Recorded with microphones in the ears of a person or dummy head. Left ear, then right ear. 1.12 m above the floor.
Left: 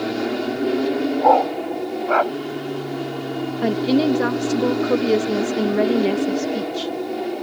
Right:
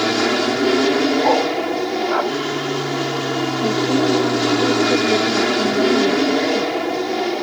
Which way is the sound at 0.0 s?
65° right (ahead or behind).